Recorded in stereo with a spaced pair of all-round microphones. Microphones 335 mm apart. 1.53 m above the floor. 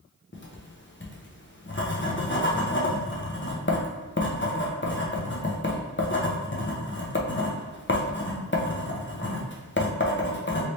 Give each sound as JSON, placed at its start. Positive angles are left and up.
{"t": 0.3, "sound": "writing", "side_deg": 35, "distance_m": 0.7}